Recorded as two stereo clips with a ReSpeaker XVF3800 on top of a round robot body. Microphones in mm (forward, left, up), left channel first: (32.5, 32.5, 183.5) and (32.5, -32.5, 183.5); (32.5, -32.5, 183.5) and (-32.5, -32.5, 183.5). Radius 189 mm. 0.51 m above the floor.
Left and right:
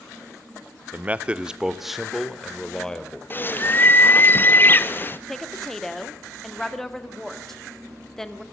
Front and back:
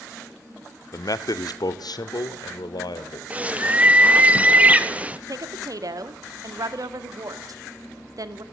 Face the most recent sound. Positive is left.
turn(degrees=175)